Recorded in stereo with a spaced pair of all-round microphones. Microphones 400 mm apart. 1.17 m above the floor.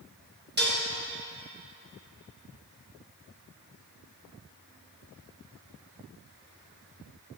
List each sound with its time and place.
0.6 s dishes clattering: 25° right (ahead or behind), 1.0 m